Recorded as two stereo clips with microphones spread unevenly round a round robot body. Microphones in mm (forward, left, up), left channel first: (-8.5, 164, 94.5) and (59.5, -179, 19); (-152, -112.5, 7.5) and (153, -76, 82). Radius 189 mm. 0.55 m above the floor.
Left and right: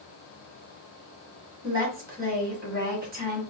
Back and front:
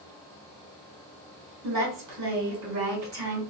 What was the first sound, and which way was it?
A woman speaking, 25° right.